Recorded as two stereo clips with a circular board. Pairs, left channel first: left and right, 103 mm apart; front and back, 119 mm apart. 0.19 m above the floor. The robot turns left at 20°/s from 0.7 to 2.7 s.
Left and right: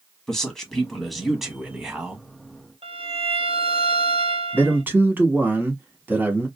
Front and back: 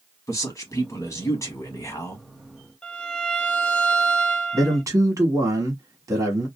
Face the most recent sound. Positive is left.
turn(degrees=-145)